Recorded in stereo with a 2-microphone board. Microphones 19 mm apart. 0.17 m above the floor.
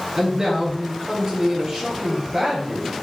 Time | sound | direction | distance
0.2 | a man speaking | 30° right (ahead or behind) | 4 m